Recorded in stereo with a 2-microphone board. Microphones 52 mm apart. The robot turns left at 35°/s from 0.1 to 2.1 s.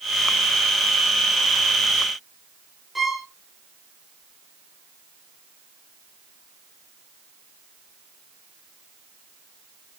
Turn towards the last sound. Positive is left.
turn(degrees=-5)  # may be behind; listen again after turning